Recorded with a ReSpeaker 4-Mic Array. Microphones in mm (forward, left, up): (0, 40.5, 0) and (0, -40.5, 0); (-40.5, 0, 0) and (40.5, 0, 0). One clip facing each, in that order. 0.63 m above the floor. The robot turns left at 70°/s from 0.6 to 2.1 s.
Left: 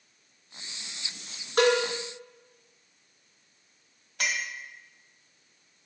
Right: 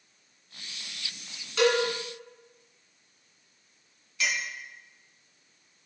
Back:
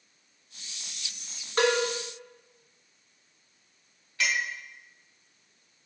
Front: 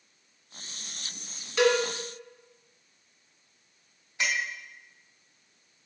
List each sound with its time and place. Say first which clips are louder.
1.6 s a cowbell: left 1 dB, front 1 dB; 135° left, 2.0 m; by 1.8 s 120° left, 2.0 m
4.2 s a clink: even, back 1 dB; 70° left, 1.3 m